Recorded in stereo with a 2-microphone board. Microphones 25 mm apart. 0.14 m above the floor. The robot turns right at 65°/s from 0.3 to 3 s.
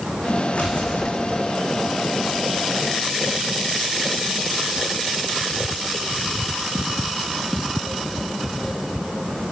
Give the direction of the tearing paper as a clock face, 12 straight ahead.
10 o'clock.